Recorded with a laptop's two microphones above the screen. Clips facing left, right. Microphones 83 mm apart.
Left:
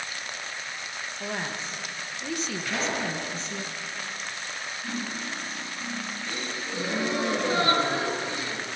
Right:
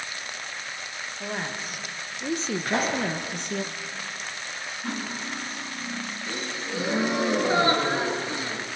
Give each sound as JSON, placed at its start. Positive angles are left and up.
{"t": 1.2, "sound": "a woman speaking", "side_deg": 0, "distance_m": 1.5}
{"t": 2.6, "sound": "a pop", "side_deg": -40, "distance_m": 7.0}
{"t": 4.8, "sound": "cutlery clinking", "side_deg": -45, "distance_m": 5.5}
{"t": 6.3, "sound": "a gasp", "side_deg": -25, "distance_m": 4.0}